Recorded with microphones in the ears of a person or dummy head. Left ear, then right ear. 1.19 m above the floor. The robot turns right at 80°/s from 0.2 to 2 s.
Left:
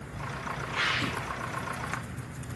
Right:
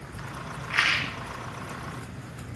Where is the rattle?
120° right, 0.8 m; by 1.1 s 85° right, 0.8 m.